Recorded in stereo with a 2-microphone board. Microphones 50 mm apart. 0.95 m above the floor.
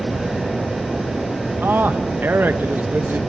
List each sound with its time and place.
1.6 s a man speaking: 45° right (ahead or behind), 1.2 m